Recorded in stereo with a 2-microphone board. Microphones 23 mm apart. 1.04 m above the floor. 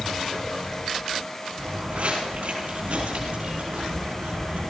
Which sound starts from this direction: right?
Footsteps, at 1.6 s.